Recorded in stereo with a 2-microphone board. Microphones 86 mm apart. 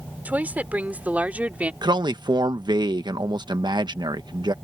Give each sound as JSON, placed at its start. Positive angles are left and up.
{"t": 0.2, "sound": "a woman speaking", "side_deg": -20}
{"t": 1.8, "sound": "a man speaking", "side_deg": -60}